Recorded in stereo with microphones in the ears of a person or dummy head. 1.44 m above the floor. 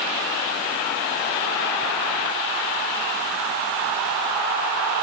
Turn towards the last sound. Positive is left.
No sound to turn to.